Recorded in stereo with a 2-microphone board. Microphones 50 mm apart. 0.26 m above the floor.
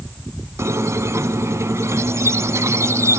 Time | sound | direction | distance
0.6 | a squeak | 70° right (ahead or behind) | 0.8 m